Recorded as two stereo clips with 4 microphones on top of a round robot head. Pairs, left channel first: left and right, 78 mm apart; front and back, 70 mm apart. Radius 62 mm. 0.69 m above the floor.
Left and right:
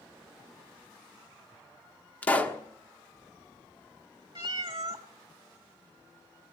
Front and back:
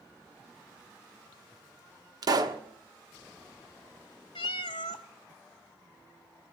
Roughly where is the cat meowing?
Ahead right.